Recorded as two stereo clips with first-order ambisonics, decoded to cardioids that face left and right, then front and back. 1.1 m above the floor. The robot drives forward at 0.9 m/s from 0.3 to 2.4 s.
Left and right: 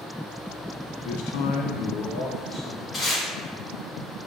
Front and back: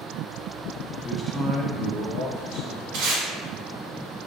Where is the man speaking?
70° left, 0.6 m; by 2.8 s 150° left, 1.2 m.